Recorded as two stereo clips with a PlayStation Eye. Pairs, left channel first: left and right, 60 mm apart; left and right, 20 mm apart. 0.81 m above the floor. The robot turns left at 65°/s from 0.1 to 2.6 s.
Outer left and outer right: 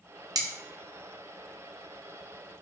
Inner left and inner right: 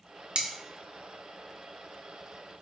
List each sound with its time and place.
0.3 s cutlery clinking: 80° right, 0.6 m; by 0.5 s 75° right (ahead or behind), 0.6 m